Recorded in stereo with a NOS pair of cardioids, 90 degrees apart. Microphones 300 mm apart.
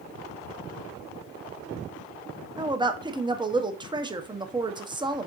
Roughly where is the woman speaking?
Ahead.